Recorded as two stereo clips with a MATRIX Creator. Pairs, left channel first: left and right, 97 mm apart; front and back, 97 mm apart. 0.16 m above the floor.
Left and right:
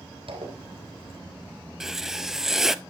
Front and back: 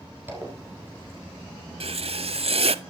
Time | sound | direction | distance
0.3 | a zipper | 110° right | 3.5 m
1.8 | writing | 175° right | 0.6 m